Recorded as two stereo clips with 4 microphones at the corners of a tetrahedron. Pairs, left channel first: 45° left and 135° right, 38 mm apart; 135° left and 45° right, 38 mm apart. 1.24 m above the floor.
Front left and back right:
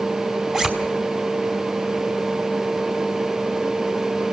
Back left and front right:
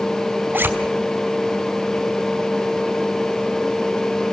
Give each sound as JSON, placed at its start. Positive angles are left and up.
{"t": 0.5, "sound": "a zipper", "azimuth_deg": -70, "distance_m": 4.0}